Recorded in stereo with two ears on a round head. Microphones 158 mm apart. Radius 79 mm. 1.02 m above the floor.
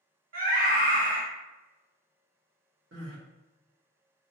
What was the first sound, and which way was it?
A scream, 50° right (ahead or behind).